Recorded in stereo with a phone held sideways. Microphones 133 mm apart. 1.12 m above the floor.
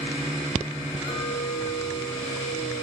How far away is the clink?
About 4.5 m.